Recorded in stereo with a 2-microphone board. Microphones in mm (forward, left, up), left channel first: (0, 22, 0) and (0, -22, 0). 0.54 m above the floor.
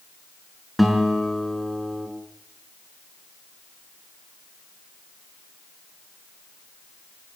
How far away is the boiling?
No boiling in this recording.